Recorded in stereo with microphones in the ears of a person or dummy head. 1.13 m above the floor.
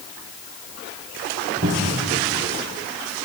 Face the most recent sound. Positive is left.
turn(degrees=-55)  # may be behind; listen again after turning